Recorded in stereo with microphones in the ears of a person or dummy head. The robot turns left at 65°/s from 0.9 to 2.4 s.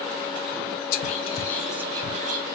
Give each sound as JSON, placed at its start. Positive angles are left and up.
{"t": 0.9, "sound": "whispering", "side_deg": 50, "distance_m": 0.6}